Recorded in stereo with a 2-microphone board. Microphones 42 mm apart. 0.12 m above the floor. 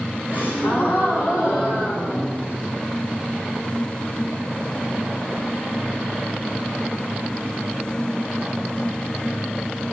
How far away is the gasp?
About 3.5 m.